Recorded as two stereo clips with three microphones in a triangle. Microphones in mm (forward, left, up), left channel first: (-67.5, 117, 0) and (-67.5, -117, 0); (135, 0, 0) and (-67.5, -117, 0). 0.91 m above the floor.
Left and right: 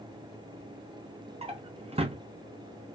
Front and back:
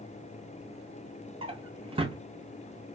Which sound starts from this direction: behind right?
A drawer, at 1.4 s.